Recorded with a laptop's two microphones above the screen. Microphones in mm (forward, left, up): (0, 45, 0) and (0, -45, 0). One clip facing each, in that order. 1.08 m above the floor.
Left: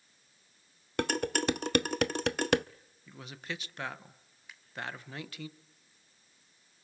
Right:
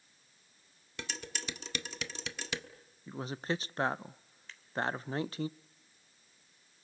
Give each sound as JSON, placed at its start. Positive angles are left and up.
{"t": 1.0, "sound": "dishes clattering", "side_deg": 60, "distance_m": 0.5}
{"t": 3.1, "sound": "a man speaking", "side_deg": -35, "distance_m": 0.5}
{"t": 4.5, "sound": "scissors", "side_deg": 10, "distance_m": 3.0}